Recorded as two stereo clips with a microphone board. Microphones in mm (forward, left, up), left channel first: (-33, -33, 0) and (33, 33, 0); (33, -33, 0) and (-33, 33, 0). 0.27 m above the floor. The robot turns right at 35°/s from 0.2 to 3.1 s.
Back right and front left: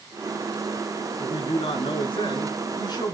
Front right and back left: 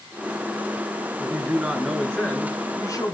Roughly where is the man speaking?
Behind.